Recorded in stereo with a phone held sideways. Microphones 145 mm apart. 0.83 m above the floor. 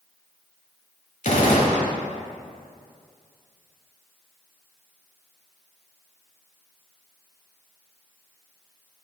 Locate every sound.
1.2 s a gunshot: 65° left (ahead or behind), 1.2 m